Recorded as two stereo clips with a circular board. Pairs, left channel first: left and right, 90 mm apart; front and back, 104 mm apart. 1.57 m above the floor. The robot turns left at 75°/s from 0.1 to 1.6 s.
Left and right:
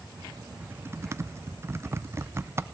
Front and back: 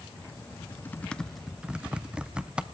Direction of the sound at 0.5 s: 30° right.